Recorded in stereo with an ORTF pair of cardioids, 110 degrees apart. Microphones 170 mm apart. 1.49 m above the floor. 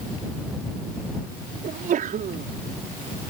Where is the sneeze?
55° right.